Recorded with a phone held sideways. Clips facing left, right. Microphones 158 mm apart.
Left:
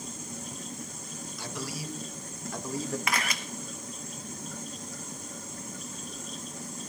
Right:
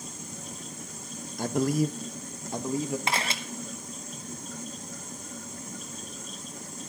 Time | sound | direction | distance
1.4 | a man speaking | 50° right (ahead or behind) | 0.7 m
3.1 | a camera shutter | 30° right (ahead or behind) | 0.9 m